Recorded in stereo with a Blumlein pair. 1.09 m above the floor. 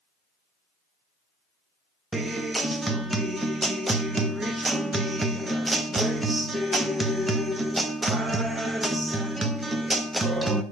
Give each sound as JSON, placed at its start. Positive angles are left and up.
{"t": 2.1, "sound": "a guitar", "azimuth_deg": -10, "distance_m": 0.6}